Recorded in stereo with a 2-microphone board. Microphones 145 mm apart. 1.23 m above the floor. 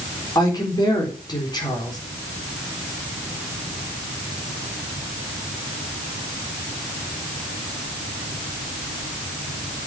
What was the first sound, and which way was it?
A woman speaking, 30° left (ahead or behind).